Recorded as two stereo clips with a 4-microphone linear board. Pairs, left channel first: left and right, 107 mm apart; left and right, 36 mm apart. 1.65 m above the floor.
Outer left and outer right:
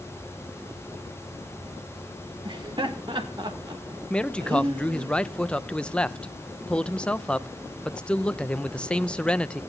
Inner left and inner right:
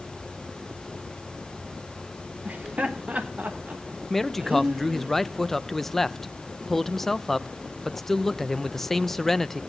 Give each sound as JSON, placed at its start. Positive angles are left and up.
{"t": 2.5, "sound": "laughter", "side_deg": -50, "distance_m": 1.8}
{"t": 4.1, "sound": "a man speaking", "side_deg": 10, "distance_m": 0.6}